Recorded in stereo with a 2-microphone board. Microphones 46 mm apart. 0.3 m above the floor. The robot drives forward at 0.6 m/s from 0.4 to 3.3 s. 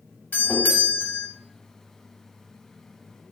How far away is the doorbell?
About 2.5 m.